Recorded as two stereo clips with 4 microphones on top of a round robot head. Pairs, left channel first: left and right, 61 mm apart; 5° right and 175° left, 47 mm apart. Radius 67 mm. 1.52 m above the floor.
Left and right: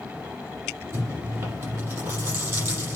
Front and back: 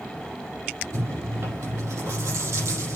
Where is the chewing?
135° right, 8 m.